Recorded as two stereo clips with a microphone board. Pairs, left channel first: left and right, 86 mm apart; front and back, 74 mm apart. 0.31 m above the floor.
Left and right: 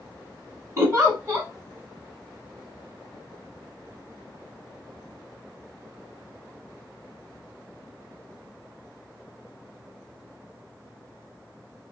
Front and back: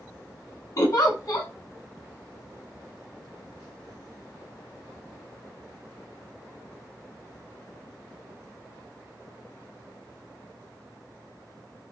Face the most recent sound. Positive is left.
turn(degrees=-40)